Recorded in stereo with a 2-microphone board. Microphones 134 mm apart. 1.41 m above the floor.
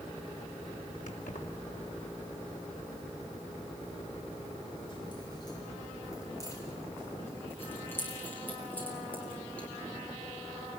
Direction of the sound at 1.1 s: 70° left (ahead or behind).